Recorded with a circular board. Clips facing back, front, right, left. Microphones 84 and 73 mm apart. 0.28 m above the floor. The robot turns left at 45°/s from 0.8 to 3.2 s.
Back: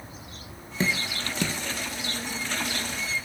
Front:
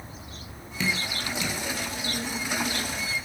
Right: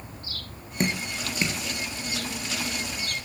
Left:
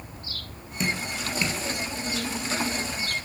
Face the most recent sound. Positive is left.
turn(degrees=125)